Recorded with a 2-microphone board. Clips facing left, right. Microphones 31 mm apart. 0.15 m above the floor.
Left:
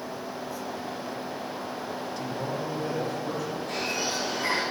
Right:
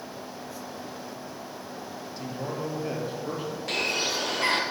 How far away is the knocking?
No knocking in this recording.